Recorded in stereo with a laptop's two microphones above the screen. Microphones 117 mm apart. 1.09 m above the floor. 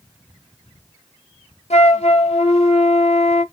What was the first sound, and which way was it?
A flute, 65° left (ahead or behind).